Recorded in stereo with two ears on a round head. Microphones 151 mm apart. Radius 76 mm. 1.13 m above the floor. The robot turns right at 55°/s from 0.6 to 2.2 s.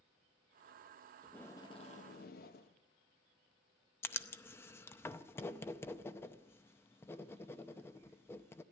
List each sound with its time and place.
1.2 s tape being pulled: straight ahead, 0.9 m; by 2.7 s 55° left, 0.9 m
4.0 s writing: 15° left (ahead or behind), 0.6 m